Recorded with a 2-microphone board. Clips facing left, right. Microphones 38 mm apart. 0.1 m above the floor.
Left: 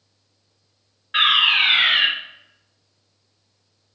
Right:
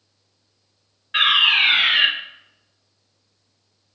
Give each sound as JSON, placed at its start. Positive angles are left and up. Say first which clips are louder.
{"t": 1.1, "sound": "a fire alarm", "louder": "even", "side_deg": 15, "distance_m": 2.5}